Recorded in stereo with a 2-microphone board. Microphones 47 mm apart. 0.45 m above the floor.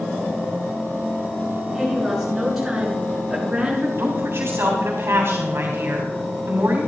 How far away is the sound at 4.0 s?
About 3 m.